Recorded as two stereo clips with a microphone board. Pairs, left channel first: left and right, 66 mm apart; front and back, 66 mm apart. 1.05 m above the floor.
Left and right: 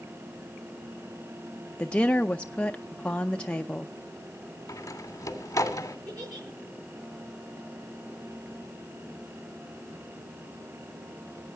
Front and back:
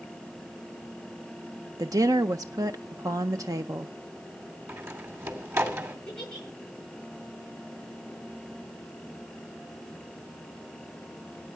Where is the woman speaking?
160° left, 0.6 m.